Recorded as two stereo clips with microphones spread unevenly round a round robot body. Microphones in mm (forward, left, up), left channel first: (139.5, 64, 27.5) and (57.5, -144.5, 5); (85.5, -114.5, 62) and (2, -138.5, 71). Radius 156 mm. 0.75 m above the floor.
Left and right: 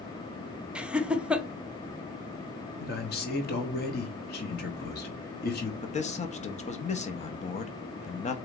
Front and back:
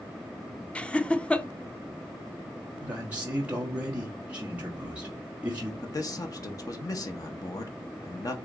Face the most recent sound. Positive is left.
turn(degrees=15)